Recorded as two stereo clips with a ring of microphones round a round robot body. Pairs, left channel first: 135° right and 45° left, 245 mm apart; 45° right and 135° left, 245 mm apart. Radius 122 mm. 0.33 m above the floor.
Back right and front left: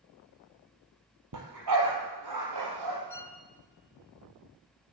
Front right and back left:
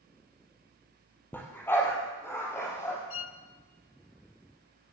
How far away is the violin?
About 0.8 m.